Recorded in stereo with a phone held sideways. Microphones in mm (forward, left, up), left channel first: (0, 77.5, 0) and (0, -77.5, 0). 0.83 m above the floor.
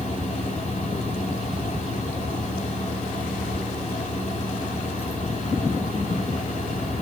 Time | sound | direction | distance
0.0 | a fan | 45° left (ahead or behind) | 3.5 m